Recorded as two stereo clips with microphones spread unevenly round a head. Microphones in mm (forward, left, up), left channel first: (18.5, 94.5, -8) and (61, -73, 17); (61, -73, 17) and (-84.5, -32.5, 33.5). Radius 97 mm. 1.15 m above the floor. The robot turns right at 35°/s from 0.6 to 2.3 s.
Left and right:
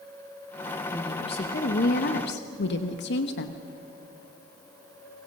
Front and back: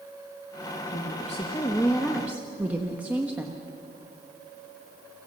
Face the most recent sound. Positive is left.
turn(degrees=80)